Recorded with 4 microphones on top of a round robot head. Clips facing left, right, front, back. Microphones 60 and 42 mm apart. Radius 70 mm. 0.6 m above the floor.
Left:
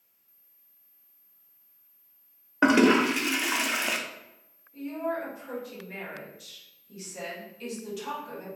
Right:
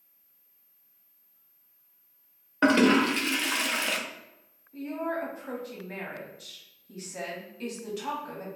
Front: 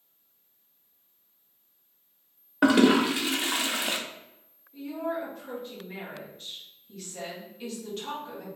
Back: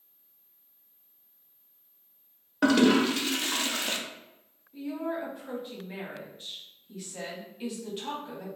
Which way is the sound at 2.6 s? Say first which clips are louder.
Left 1 dB, front 2 dB; 35° left.